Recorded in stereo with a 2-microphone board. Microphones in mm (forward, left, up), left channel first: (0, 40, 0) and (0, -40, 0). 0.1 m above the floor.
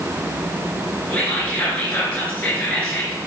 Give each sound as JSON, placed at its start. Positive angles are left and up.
{"t": 1.1, "sound": "whispering", "side_deg": 20, "distance_m": 1.2}